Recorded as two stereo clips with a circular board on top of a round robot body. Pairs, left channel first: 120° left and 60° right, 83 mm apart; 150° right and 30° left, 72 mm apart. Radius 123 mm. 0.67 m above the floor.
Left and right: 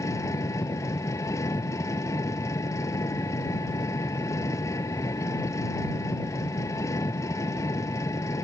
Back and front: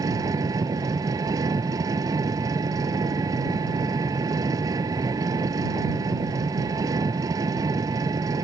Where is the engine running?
70° left.